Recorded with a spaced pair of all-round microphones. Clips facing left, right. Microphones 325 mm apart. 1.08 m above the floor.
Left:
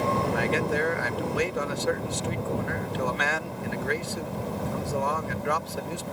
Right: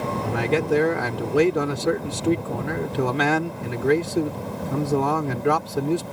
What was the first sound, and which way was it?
A man speaking, 75° right (ahead or behind).